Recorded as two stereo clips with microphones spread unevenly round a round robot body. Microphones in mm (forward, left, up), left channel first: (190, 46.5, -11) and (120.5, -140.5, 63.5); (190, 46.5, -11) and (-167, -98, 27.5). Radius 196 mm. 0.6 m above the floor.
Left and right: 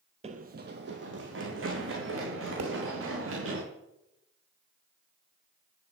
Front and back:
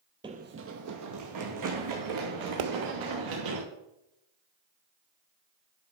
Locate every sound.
0.2 s running footsteps: 85° right, 0.9 m; by 3.6 s 125° right, 5.5 m
2.6 s a pop: 150° right, 1.1 m